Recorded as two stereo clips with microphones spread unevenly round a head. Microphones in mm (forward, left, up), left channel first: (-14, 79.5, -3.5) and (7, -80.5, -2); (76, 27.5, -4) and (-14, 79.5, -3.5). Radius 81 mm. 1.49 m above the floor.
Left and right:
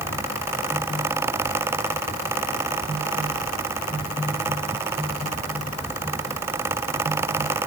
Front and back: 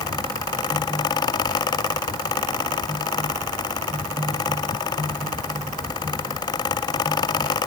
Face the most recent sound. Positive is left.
No sound to turn to.